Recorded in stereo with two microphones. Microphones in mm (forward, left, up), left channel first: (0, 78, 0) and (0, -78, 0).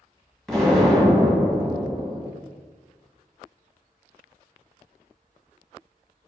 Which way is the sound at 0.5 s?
5° left (ahead or behind).